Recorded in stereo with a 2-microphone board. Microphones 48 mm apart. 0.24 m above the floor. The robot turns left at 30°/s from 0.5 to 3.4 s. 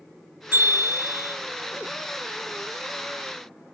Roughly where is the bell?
Right.